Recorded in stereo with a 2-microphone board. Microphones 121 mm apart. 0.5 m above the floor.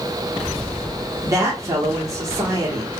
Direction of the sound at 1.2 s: 25° right (ahead or behind).